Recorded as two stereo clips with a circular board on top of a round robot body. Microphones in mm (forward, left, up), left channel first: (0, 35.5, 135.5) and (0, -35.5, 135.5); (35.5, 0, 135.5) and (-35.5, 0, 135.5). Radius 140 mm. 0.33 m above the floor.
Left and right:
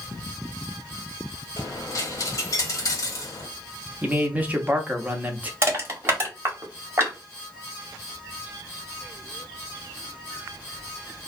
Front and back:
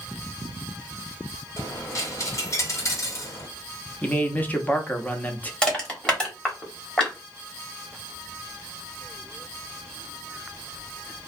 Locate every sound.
1.6 s a dropped coin: 50° left, 1.2 m
4.0 s a man speaking: 45° right, 0.9 m
5.6 s crushing: 70° right, 1.7 m